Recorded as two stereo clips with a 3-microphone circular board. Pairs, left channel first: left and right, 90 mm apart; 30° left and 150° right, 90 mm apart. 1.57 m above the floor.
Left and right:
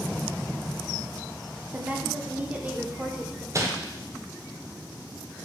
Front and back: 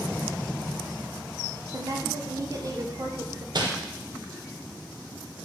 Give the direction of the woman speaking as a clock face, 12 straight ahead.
5 o'clock.